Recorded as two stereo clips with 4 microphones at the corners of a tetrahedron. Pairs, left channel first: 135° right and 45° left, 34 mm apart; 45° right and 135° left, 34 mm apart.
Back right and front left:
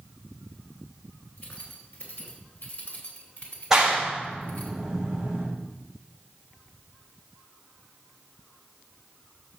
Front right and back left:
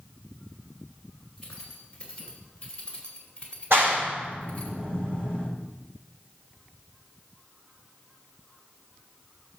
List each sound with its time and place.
1.4 s keys jangling: 110° right, 3.5 m; by 4.7 s 100° right, 1.7 m
3.7 s a clap: 120° left, 6 m